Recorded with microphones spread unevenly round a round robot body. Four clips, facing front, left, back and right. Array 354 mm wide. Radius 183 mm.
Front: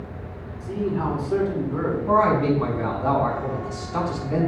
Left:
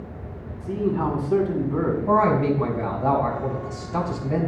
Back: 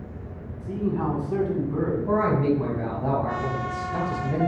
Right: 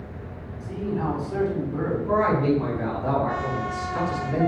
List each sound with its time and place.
0.6 s a man speaking: 100° left, 4 m
2.1 s a man speaking: 115° left, 3.5 m